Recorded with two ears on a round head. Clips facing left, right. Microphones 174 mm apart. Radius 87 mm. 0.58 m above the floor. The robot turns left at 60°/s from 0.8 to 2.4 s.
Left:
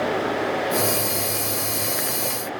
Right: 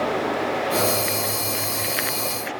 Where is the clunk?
No clunk in this recording.